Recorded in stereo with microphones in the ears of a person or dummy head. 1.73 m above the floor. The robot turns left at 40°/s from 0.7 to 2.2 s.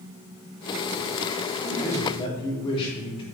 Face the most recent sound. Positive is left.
turn(degrees=30)  # may be behind; listen again after turning